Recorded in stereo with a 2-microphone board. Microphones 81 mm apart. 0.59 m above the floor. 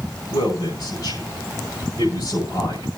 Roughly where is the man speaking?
Left.